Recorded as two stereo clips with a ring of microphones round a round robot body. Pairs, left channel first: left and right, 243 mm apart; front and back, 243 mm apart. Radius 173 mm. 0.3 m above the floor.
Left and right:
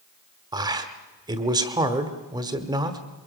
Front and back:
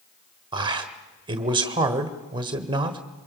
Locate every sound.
0.5 s a man speaking: 140° right, 1.1 m